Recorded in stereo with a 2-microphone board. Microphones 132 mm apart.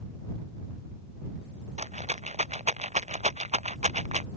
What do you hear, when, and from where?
1.8 s a rattle: 60° right (ahead or behind)